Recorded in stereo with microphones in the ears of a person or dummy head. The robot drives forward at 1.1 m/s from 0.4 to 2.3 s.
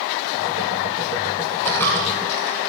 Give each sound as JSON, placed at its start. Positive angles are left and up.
{"t": 1.6, "sound": "a dropped coin", "side_deg": 10, "distance_m": 2.0}